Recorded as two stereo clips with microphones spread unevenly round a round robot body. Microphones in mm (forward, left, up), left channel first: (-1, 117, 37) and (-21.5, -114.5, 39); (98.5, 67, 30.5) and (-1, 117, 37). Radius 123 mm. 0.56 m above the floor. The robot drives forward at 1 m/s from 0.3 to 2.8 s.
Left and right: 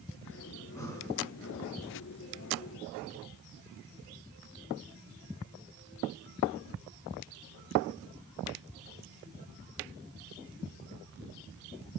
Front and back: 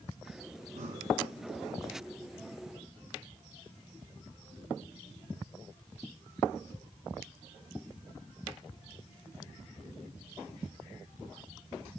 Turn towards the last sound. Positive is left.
turn(degrees=170)